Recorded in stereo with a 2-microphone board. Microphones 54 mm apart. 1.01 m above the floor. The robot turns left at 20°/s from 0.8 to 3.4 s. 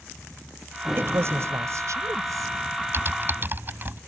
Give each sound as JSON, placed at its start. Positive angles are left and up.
{"t": 1.0, "sound": "a woman speaking", "azimuth_deg": -50}
{"t": 2.9, "sound": "typing on a keyboard", "side_deg": -45}